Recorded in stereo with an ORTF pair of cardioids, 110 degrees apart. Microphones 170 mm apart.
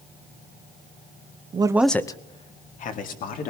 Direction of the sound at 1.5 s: 35° right.